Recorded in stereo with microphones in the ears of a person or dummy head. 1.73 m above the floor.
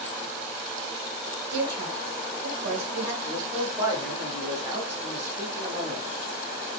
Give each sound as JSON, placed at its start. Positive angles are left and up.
{"t": 1.5, "sound": "a woman speaking", "side_deg": -50, "distance_m": 1.2}
{"t": 3.2, "sound": "a man speaking", "side_deg": -20, "distance_m": 1.5}